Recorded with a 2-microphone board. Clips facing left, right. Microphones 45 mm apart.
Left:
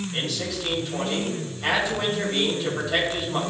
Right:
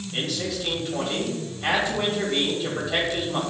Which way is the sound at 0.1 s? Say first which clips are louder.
Right 5 dB; 5° right (ahead or behind).